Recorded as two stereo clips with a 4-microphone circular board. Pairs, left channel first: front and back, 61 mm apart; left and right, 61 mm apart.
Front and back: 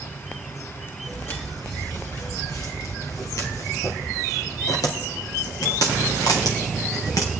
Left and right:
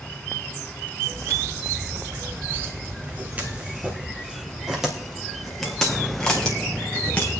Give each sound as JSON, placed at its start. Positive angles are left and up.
{"t": 1.1, "sound": "footsteps", "azimuth_deg": -50, "distance_m": 4.0}